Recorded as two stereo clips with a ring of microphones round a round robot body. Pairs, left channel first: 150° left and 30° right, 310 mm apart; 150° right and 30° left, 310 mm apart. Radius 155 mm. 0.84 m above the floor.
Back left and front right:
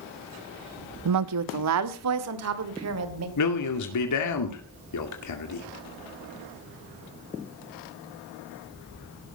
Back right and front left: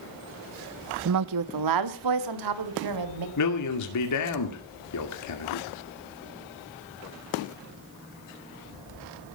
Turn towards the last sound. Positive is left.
turn(degrees=180)